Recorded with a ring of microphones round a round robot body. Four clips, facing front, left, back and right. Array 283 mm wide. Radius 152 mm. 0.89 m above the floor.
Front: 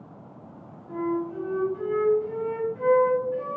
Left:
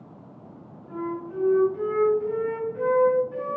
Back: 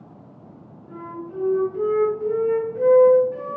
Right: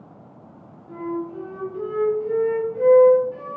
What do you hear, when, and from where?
0.9 s a flute: 160° left, 1.9 m